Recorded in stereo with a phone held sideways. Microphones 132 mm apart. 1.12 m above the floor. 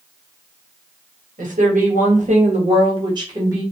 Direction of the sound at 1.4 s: 90° right.